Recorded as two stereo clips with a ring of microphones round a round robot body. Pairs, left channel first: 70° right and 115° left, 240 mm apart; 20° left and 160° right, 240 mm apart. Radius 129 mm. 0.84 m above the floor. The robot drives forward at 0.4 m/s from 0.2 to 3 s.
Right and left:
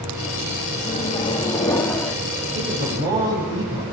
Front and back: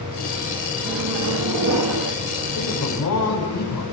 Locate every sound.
0.8 s a microwave: 130° right, 1.0 m; by 2.1 s 150° right, 1.4 m
2.5 s a man speaking: 45° left, 7 m